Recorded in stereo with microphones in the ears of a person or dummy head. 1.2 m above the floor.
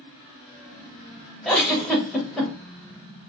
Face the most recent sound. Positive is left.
turn(degrees=5)  # may be behind; listen again after turning